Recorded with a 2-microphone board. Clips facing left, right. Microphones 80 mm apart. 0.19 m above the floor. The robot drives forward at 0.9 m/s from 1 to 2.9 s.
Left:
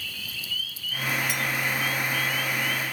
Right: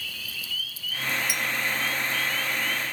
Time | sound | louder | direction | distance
1.3 | a clink | left 1 dB | 10° right (ahead or behind) | 2.0 m